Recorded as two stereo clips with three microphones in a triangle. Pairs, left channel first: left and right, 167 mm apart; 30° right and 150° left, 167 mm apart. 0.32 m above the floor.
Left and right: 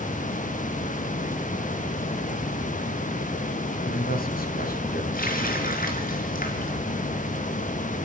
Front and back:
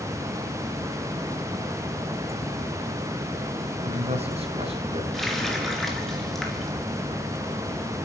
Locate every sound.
3.8 s a man speaking: 105° left, 3 m; by 5.0 s 95° left, 2.5 m
5.1 s a running tap: 60° left, 3.5 m